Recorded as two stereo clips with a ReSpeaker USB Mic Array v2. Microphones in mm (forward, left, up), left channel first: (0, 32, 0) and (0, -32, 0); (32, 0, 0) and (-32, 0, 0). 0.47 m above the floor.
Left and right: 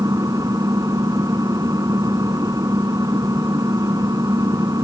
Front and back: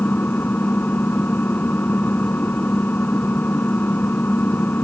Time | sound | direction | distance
0.0 | an engine running | 65° right | ?